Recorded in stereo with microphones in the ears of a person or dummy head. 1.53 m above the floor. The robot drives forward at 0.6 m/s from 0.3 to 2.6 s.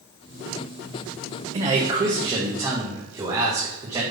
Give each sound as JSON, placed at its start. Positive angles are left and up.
{"t": 1.5, "sound": "a man speaking", "side_deg": -30, "distance_m": 1.0}